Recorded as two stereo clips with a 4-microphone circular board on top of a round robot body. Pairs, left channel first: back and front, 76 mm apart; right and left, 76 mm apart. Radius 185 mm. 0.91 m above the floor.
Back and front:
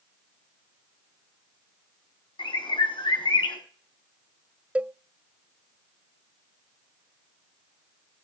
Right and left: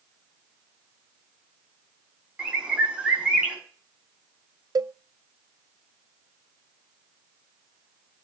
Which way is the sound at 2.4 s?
170° left.